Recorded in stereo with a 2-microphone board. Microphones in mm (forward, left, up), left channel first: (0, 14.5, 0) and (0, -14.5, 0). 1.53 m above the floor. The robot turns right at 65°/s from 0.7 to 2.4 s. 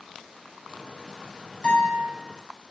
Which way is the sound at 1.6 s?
30° left (ahead or behind).